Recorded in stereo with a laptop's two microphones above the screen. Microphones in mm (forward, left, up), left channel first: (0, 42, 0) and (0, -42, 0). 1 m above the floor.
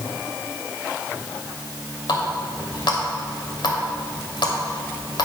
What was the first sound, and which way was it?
A running tap, 75° left (ahead or behind).